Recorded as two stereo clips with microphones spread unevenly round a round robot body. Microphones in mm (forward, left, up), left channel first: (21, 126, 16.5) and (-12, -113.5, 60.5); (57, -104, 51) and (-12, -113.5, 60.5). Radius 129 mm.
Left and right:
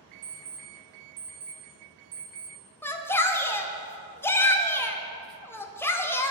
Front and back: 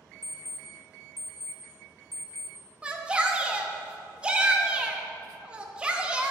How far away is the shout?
About 0.8 m.